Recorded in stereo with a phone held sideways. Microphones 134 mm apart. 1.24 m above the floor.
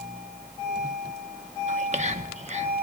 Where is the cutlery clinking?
No cutlery clinking in this recording.